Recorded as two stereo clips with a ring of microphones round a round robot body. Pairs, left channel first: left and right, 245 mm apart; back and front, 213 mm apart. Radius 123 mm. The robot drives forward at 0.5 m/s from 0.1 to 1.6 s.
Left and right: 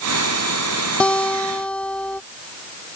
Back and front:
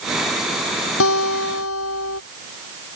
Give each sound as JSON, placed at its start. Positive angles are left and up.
{"t": 1.0, "sound": "a guitar", "azimuth_deg": 175}